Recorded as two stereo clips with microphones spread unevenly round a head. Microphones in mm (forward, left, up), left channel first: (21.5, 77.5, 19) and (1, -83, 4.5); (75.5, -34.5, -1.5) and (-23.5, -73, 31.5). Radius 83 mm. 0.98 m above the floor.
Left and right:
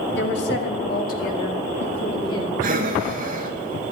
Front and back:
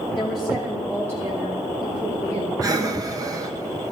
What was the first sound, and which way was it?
A woman speaking, 105° left.